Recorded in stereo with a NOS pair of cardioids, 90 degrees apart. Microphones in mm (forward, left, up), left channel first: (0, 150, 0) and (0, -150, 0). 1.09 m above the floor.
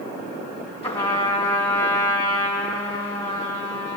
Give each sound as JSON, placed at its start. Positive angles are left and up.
{"t": 0.8, "sound": "a trumpet", "azimuth_deg": 20, "distance_m": 2.0}